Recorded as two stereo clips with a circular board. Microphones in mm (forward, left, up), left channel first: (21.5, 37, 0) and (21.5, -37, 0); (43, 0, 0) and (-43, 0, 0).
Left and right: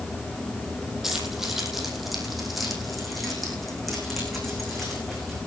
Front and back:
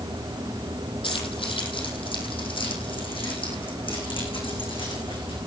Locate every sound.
1.0 s keys jangling: 5° right, 5 m; by 5.4 s straight ahead, 11 m